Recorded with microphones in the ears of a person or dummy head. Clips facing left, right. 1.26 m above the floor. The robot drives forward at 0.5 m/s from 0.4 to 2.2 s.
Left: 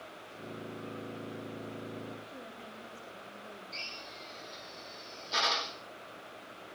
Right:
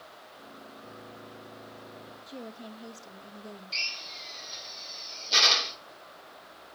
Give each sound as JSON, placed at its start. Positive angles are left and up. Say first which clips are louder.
{"t": 2.3, "sound": "a woman speaking", "louder": "right 5 dB", "side_deg": -75, "distance_m": 2.0}
{"t": 3.7, "sound": "a drill", "louder": "left 1 dB", "side_deg": -40, "distance_m": 3.0}